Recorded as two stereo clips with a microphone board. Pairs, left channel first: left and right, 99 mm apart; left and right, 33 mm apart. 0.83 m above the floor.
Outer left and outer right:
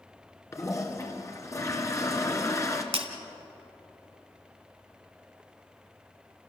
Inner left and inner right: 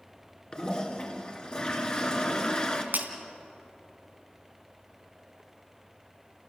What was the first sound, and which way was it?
A toilet flushing, 30° left (ahead or behind).